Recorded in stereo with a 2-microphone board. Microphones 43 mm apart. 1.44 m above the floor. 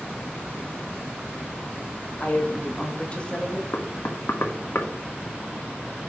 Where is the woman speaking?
40° left (ahead or behind), 2.5 m; by 3.6 s 20° left (ahead or behind), 2 m.